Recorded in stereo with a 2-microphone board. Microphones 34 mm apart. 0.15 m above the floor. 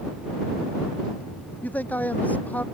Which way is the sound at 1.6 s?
55° left (ahead or behind).